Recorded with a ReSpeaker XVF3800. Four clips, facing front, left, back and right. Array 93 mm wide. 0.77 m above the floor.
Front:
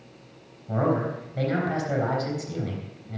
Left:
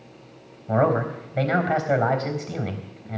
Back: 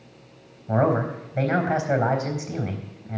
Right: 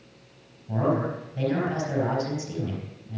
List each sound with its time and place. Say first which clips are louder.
0.7 s a man speaking: left 4 dB, back 3 dB; 110° left, 3.5 m